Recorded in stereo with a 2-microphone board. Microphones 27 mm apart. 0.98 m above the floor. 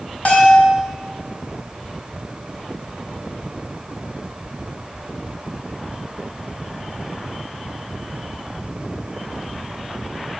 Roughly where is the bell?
Left.